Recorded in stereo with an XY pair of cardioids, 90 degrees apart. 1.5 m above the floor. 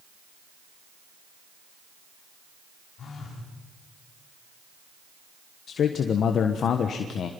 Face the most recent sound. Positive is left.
turn(degrees=65)